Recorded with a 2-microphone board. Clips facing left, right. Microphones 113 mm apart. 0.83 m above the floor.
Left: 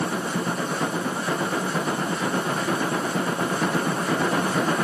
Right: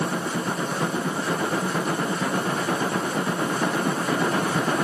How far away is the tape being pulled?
No tape being pulled in this recording.